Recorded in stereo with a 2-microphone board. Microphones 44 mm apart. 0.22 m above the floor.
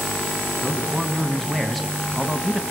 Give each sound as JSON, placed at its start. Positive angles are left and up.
{"t": 0.6, "sound": "a man speaking", "side_deg": 15, "distance_m": 2.0}